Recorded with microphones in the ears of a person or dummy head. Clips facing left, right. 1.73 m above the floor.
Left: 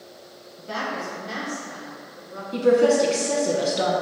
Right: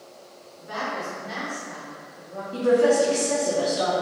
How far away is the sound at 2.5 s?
About 1.3 m.